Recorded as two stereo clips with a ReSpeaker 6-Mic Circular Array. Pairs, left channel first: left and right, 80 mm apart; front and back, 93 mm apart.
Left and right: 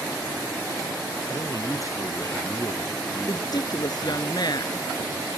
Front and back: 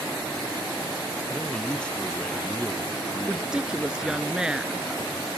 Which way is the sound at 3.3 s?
100° left.